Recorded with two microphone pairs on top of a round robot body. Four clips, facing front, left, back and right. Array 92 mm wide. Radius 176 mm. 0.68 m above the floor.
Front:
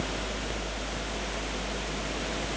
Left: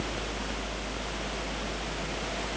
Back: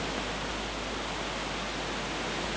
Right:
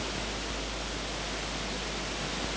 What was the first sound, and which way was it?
Only background noise.